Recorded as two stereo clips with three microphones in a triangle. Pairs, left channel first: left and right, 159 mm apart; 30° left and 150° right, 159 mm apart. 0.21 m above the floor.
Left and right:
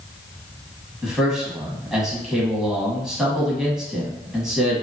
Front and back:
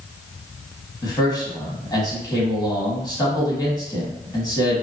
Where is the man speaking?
5° right, 1.1 m.